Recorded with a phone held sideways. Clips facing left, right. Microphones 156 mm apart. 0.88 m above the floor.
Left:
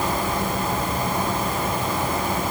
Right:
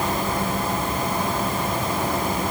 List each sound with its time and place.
Only background noise.